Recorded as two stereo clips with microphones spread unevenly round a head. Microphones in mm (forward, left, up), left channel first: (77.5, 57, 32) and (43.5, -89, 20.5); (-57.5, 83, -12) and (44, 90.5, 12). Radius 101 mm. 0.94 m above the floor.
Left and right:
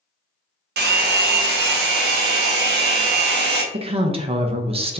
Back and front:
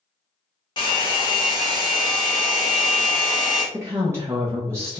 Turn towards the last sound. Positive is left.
turn(degrees=-70)